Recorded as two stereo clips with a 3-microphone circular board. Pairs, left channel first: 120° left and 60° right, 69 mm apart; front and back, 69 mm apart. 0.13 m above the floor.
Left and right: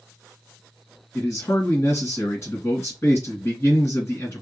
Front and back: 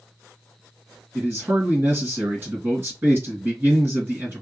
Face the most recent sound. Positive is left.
turn(degrees=145)